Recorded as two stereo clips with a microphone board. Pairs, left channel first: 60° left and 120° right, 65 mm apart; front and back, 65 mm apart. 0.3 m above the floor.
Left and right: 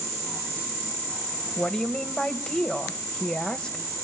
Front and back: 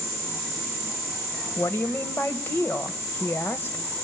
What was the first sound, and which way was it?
A woman speaking, straight ahead.